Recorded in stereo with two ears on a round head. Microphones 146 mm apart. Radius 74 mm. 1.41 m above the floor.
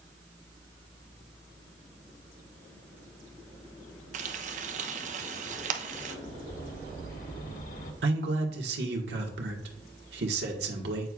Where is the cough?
I don't hear a cough.